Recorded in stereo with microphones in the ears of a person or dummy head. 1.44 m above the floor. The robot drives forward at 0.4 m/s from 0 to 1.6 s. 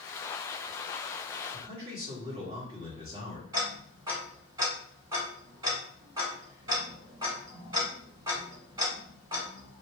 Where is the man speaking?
35° right (ahead or behind), 1.4 m.